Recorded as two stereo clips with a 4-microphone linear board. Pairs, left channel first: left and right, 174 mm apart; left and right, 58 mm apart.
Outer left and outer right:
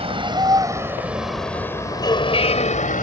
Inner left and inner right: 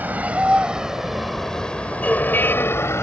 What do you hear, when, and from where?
0.0 s a vehicle: 35° right (ahead or behind); by 3.0 s 50° left (ahead or behind)